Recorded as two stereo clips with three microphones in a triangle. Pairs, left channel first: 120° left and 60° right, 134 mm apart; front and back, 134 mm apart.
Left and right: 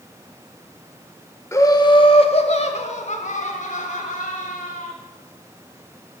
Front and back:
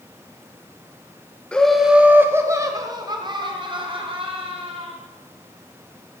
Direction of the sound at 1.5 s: 75° left.